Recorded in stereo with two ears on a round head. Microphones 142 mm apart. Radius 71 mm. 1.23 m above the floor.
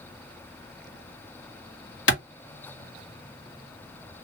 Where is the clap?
75° left (ahead or behind), 1.4 m.